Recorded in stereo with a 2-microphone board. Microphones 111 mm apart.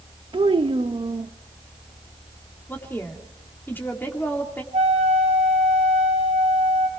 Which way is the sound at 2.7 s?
15° left (ahead or behind).